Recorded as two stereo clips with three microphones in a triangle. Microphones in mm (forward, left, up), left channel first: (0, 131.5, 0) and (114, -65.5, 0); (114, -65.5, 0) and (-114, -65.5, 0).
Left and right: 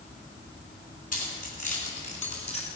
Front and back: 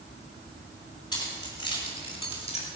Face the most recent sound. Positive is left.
turn(degrees=60)